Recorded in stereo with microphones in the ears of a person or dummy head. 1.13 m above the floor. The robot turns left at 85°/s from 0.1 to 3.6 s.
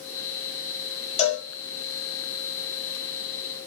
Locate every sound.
1.2 s a cowbell: 35° left (ahead or behind), 1.8 m; by 1.5 s 55° left (ahead or behind), 1.8 m